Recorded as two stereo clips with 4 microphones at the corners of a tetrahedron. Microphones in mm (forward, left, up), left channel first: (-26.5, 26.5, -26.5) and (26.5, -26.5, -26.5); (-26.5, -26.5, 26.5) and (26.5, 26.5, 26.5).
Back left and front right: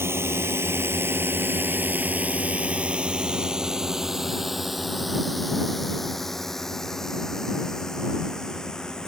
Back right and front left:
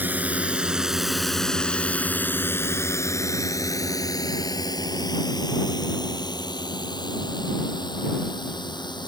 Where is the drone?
10° right; by 9.1 s 145° right.